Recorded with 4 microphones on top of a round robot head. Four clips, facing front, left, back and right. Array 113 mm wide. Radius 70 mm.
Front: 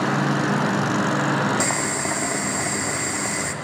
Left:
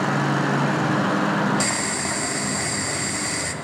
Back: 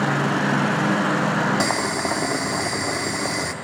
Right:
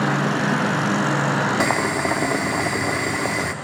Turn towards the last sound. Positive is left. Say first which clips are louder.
# right 5 dB, back 2 dB
turn(degrees=-110)